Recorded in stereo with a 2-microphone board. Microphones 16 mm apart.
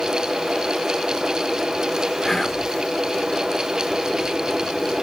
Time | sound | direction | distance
2.2 | whispering | 20° left (ahead or behind) | 0.7 m